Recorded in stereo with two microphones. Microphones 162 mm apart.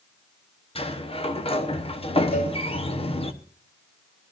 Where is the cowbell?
75° left (ahead or behind), 4 m.